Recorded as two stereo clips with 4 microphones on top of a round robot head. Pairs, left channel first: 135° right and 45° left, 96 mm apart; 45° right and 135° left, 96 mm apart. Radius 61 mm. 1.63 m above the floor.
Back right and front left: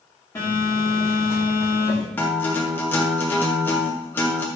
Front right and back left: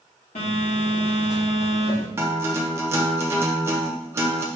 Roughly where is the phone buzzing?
Right.